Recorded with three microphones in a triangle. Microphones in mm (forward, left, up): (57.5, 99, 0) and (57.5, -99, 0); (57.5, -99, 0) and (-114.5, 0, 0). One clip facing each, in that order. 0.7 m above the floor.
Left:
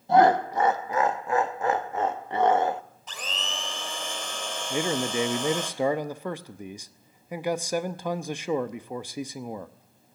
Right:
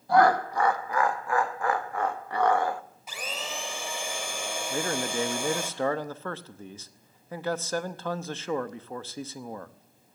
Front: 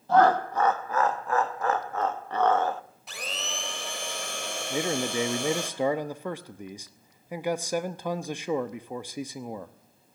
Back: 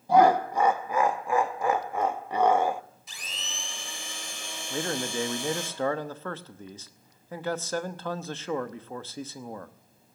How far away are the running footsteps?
I don't hear running footsteps.